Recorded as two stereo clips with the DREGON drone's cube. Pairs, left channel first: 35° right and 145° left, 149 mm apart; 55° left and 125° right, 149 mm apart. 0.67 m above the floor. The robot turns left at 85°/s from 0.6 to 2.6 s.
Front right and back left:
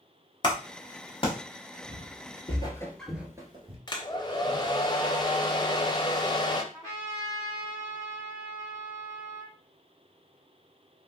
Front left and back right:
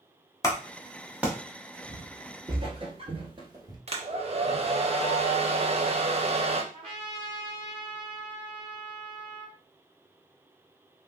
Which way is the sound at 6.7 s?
90° right.